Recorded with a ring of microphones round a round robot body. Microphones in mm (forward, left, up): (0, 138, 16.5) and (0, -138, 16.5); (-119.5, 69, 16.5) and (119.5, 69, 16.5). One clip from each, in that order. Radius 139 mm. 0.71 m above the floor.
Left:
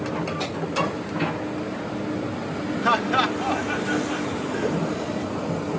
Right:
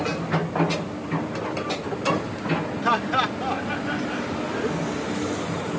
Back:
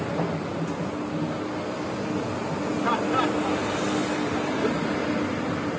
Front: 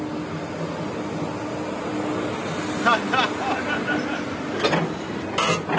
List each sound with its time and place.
2.8 s laughter: 10° left